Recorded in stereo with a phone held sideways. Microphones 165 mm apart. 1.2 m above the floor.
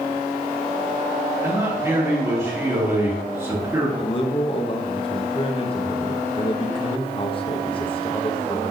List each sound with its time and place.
1.4 s a man speaking: 15° right (ahead or behind), 3 m
4.0 s a man speaking: 35° left (ahead or behind), 1.2 m